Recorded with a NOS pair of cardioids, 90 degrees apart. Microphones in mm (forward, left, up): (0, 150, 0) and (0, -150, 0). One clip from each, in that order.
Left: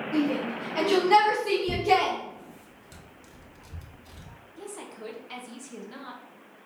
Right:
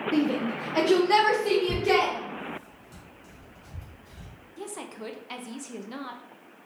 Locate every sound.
0.1 s a shout: 50° right, 0.6 m; by 2.1 s 65° right, 1.9 m
1.7 s tearing paper: 50° left, 1.4 m
4.6 s a woman speaking: 25° right, 0.7 m